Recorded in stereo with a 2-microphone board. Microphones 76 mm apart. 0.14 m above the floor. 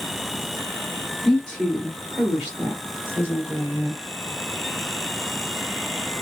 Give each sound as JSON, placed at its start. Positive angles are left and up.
{"t": 1.2, "sound": "a woman speaking", "side_deg": 20, "distance_m": 1.7}